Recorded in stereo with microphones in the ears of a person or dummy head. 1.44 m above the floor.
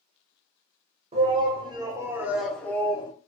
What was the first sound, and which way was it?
A shout, 30° right (ahead or behind).